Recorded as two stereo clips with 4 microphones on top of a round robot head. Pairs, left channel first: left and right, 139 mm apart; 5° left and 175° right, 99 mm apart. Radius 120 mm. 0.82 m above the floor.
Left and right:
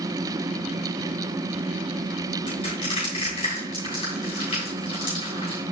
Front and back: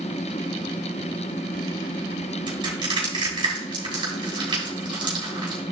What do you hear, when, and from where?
2.5 s crushing: 150° left, 6 m